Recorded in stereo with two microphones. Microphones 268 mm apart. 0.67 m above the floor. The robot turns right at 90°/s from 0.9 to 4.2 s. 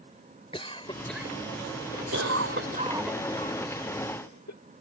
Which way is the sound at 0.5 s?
20° left (ahead or behind).